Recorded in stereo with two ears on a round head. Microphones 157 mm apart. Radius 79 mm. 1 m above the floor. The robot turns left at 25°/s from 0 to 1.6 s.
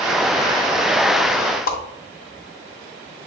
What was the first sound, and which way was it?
A whoosh, 55° left (ahead or behind).